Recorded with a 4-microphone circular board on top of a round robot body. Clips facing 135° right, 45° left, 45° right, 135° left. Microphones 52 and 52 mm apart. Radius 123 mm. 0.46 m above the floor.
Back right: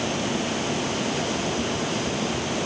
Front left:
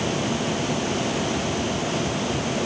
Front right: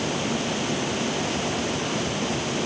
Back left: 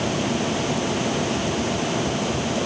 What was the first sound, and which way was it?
Only background noise.